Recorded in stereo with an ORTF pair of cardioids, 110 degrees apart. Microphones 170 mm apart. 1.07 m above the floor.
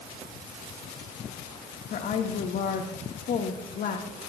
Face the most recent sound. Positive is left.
turn(degrees=55)